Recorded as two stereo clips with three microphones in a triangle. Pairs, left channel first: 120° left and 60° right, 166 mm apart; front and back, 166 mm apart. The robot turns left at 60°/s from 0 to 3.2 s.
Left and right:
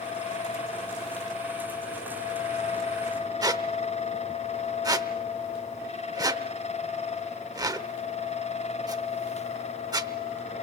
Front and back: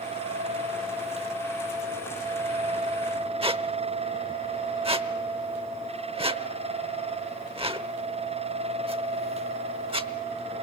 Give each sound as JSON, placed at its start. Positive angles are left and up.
{"t": 3.4, "sound": "a squeak", "azimuth_deg": -130, "distance_m": 0.8}